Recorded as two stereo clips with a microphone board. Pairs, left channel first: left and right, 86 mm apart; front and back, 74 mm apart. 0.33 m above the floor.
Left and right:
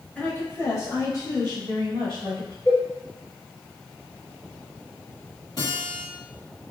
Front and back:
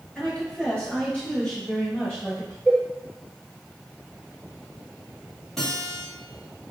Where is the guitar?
80° left, 1.4 m.